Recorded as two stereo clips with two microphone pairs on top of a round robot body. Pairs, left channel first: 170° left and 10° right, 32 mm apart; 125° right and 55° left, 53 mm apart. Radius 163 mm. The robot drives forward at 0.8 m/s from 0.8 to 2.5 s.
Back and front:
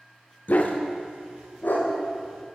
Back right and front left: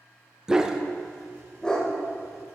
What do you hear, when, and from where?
0.5 s a dog barking: 135° left, 0.6 m; by 1.9 s 160° left, 1.4 m